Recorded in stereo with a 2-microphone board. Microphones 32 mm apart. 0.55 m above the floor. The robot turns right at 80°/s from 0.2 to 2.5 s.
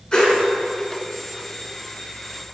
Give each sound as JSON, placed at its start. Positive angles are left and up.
{"t": 0.1, "sound": "a whoosh", "side_deg": 30, "distance_m": 1.6}